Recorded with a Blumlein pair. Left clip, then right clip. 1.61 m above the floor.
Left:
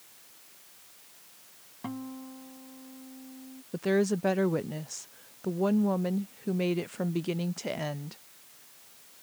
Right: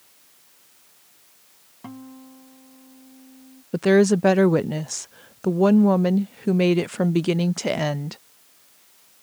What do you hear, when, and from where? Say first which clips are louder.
1.8 s a guitar: left 1 dB; 5° left
3.7 s a woman speaking: right 10 dB; 60° right